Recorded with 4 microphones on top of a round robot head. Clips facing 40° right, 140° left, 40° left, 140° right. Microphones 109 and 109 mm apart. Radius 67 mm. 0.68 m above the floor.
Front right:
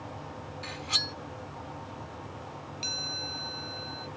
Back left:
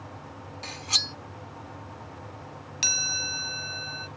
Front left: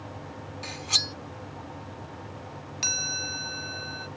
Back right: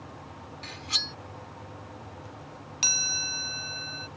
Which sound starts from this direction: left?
Cutlery clinking, at 0.6 s.